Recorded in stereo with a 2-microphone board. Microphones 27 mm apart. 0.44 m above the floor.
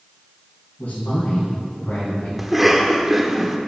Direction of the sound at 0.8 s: 70° left (ahead or behind).